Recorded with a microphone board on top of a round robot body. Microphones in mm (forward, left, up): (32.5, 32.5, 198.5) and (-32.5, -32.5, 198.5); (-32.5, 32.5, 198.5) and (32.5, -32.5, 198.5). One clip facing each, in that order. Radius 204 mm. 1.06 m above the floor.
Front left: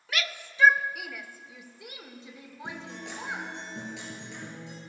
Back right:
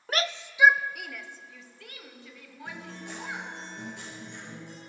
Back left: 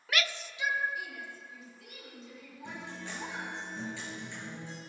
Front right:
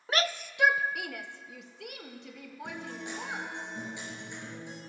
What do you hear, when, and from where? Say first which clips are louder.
0.1 s a shout: back right 4 dB, front right 4 dB; 100° right, 0.7 m; by 3.5 s 20° right, 3 m
2.6 s a guitar: front left 1 dB, front right 3 dB; 30° left, 5 m